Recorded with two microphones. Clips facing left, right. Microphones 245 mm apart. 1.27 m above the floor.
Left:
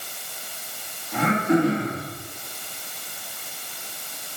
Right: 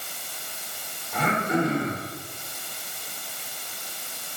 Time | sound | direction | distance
1.1 | throat clearing | 70° left (ahead or behind) | 2.5 m